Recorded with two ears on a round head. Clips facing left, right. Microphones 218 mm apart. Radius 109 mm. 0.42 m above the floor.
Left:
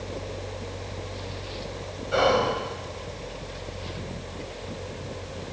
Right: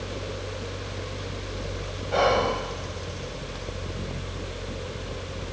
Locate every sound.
2.1 s whispering: 15° left (ahead or behind), 1.9 m